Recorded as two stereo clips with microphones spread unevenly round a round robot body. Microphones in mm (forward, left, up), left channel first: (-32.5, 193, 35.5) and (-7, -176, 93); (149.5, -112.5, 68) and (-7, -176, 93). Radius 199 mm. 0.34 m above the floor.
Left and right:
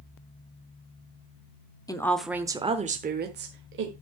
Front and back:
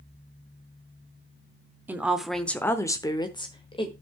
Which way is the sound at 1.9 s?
120° left.